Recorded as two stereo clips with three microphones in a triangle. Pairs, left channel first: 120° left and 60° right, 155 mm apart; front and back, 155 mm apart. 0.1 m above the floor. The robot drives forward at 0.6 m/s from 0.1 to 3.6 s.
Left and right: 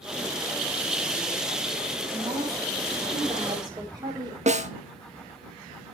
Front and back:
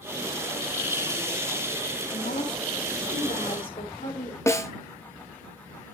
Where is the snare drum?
65° right, 0.7 m.